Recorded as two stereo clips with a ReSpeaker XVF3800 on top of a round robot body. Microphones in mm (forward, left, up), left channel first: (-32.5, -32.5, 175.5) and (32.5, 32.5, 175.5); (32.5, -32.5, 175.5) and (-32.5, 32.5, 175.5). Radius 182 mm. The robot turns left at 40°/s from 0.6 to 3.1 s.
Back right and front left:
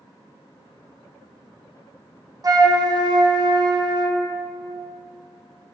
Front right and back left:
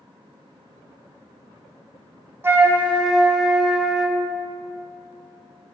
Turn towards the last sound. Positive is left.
turn(degrees=50)